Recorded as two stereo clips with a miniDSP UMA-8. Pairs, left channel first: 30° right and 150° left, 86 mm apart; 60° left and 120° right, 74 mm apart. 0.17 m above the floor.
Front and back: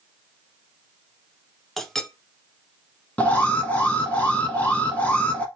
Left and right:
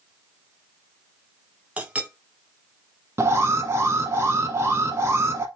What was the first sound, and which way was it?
A clink, 110° right.